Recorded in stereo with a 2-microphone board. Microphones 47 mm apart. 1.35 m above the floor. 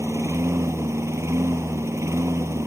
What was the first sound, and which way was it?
A lawn mower, 75° right (ahead or behind).